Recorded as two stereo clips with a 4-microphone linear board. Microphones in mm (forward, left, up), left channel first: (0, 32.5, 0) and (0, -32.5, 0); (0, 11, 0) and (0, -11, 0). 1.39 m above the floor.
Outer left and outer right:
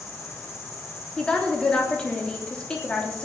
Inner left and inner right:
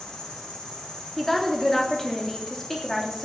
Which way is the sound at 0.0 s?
40° left (ahead or behind).